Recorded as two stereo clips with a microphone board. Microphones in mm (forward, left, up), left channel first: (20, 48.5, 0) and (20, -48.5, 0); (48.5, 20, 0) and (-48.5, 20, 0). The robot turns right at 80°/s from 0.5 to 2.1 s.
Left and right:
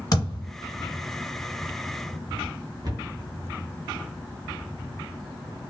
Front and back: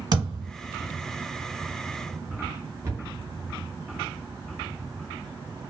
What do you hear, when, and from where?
0.1 s a thud: 135° left, 1.6 m; by 0.5 s 140° left, 1.6 m
2.8 s a cupboard door: 125° right, 0.9 m